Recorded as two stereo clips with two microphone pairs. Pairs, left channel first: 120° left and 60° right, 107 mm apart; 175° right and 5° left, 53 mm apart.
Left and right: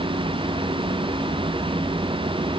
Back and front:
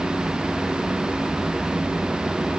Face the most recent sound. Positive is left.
No sound to turn to.